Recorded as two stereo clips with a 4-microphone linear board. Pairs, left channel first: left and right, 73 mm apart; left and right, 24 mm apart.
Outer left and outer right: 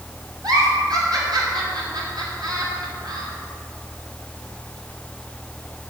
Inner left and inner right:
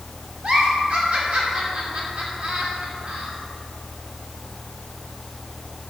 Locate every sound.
0.4 s a giggle: 70° right (ahead or behind), 2.5 m